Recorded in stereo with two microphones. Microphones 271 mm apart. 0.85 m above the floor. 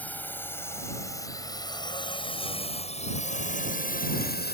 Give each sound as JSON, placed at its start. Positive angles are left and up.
{"t": 0.0, "sound": "a drone", "side_deg": 5}